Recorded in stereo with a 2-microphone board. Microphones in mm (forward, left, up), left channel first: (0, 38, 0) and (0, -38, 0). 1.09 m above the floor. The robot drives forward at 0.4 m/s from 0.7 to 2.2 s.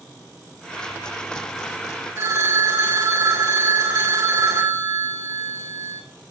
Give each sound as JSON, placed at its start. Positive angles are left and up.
{"t": 2.2, "sound": "a phone ringing", "side_deg": -40, "distance_m": 1.6}